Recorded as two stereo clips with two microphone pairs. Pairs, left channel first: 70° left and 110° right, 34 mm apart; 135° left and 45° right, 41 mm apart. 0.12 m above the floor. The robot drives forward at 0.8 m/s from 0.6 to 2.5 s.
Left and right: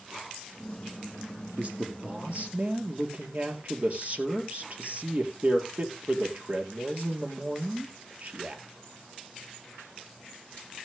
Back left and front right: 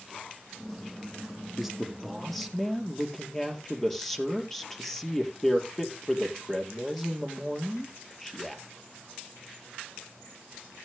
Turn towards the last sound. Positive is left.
turn(degrees=-140)